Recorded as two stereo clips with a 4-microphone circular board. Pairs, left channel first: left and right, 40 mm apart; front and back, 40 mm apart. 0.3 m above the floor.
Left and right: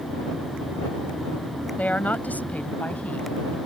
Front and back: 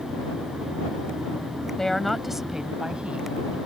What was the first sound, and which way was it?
A woman speaking, 70° left.